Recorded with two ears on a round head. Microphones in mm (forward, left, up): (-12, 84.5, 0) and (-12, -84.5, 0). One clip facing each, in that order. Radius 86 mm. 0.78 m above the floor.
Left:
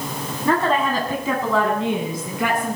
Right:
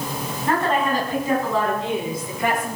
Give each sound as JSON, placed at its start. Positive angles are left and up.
{"t": 0.5, "sound": "a woman speaking", "side_deg": 70, "distance_m": 6.5}